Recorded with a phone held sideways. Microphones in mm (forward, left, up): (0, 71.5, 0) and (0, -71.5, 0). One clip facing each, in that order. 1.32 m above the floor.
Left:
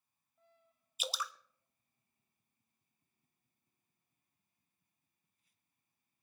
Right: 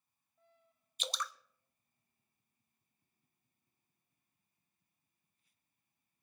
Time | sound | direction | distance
1.0 | dripping | 5° left (ahead or behind) | 0.8 m